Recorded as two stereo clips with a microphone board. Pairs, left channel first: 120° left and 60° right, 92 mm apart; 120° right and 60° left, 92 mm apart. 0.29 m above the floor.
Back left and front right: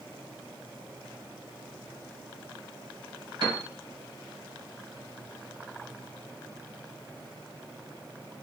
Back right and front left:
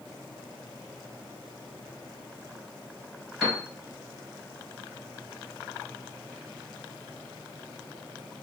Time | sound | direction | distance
3.4 | a piano | 30° right | 2.5 m